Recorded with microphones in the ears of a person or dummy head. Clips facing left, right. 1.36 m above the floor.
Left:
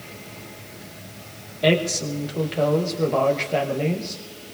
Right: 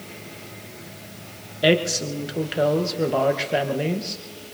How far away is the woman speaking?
About 1.0 m.